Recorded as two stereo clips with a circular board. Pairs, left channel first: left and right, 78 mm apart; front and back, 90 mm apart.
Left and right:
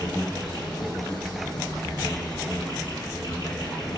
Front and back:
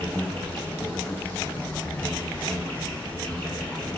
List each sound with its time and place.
0.0 s an insect: 70° left, 8.5 m